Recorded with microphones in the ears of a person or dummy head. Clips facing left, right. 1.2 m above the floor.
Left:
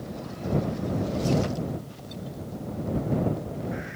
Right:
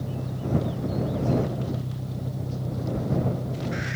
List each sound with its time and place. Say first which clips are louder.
0.0 s an engine running: right 2 dB; 65° right (ahead or behind)